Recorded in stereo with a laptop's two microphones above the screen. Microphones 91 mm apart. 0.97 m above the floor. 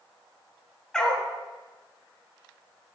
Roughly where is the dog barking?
Centre.